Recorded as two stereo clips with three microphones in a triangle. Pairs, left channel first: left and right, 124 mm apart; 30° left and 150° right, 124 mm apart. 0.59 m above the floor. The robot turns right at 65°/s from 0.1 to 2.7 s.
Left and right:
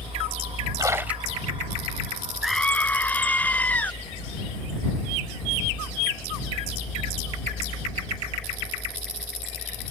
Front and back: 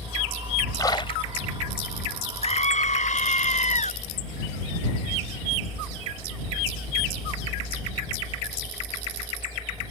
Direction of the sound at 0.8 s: 35° right.